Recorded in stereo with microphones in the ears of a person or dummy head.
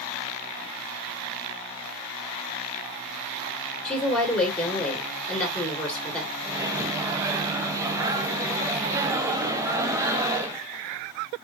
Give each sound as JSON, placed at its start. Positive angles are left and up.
{"t": 3.9, "sound": "a woman speaking", "side_deg": 10, "distance_m": 1.9}
{"t": 6.4, "sound": "a microwave", "side_deg": -15, "distance_m": 0.5}